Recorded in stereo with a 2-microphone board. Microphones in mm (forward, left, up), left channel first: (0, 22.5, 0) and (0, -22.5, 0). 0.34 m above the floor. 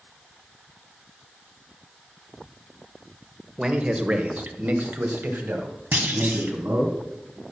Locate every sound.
3.6 s a man speaking: 20° right (ahead or behind), 1.5 m; by 6.9 s 60° right (ahead or behind), 3.5 m
5.9 s a clunk: 50° right (ahead or behind), 2 m